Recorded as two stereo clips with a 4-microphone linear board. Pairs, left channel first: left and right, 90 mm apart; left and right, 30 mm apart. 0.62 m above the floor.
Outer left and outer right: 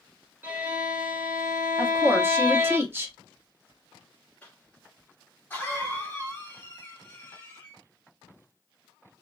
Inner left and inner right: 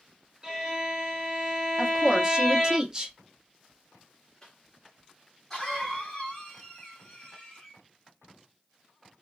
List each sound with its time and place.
0.4 s a violin: 20° right (ahead or behind), 1.6 m
1.8 s a woman speaking: 25° right (ahead or behind), 0.8 m
4.4 s a cough: 15° left (ahead or behind), 1.0 m